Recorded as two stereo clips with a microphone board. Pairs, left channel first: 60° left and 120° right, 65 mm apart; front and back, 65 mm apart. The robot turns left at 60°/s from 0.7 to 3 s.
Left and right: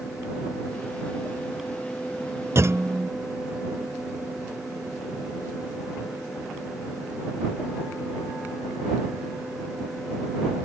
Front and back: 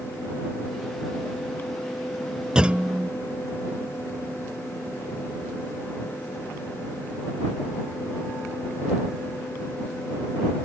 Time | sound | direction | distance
2.5 | a clunk | 105° right | ?